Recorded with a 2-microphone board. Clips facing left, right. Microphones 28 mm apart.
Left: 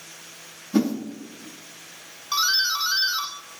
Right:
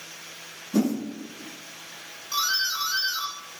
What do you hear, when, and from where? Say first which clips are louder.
0.7 s a whoosh: left 2 dB; 35° left (ahead or behind), 5 m
2.3 s a doorbell: left 3 dB; 40° left (ahead or behind), 1.7 m